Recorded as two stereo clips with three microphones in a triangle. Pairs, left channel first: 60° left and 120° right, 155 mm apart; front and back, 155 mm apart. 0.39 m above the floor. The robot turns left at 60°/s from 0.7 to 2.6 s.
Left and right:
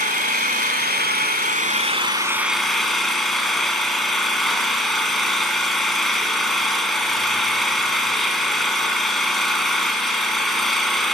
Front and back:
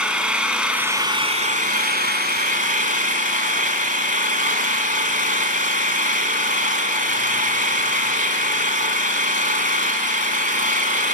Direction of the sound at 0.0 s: 95° right.